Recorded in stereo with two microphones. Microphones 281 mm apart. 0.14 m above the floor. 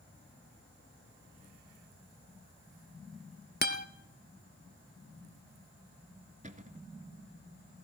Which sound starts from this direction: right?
A cupboard door, at 6.4 s.